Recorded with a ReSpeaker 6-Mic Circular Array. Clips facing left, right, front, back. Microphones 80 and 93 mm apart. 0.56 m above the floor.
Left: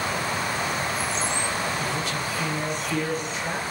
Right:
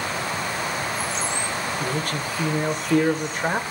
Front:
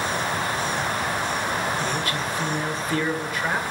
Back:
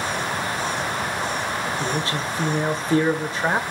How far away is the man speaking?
About 2 m.